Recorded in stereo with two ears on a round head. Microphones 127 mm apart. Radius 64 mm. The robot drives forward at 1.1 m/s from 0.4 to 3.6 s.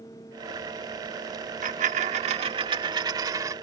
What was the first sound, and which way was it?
A dropped coin, 60° right (ahead or behind).